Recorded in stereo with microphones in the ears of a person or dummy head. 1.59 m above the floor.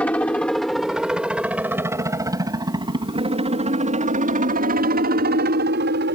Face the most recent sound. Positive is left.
turn(degrees=-55)  # may be behind; listen again after turning